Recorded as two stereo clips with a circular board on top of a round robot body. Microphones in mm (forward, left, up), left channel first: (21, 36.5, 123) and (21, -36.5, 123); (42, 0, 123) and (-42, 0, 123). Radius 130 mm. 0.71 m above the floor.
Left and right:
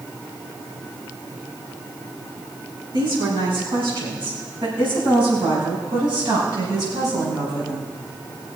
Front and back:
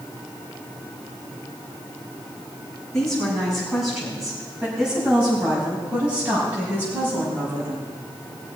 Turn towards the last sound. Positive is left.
turn(degrees=-120)